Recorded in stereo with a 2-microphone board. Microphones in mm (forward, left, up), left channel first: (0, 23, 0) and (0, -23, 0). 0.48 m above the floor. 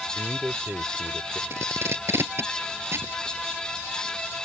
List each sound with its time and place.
0.1 s a man speaking: 40° right (ahead or behind)
1.5 s tape being pulled: 60° right (ahead or behind)